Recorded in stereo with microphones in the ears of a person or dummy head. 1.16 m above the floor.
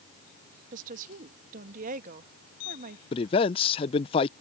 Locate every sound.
0.7 s a woman speaking: 50° right (ahead or behind)
3.1 s a man speaking: 35° left (ahead or behind)